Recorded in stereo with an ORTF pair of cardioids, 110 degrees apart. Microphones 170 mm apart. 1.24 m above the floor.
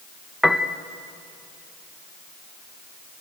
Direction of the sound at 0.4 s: Straight ahead.